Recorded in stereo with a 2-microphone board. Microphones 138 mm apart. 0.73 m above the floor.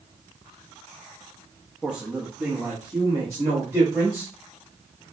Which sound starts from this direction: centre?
A man speaking, at 1.8 s.